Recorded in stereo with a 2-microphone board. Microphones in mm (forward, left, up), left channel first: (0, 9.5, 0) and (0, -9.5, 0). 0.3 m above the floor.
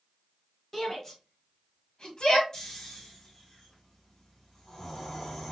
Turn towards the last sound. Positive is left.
turn(degrees=35)  # may be behind; listen again after turning